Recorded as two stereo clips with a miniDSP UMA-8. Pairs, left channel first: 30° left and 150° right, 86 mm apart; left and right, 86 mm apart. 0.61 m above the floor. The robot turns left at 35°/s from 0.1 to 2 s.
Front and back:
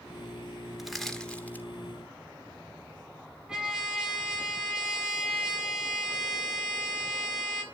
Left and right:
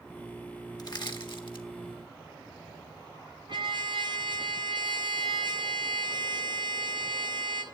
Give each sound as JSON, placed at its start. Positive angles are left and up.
{"t": 0.8, "sound": "crushing", "azimuth_deg": 125, "distance_m": 1.5}
{"t": 3.5, "sound": "a trumpet", "azimuth_deg": -70, "distance_m": 3.0}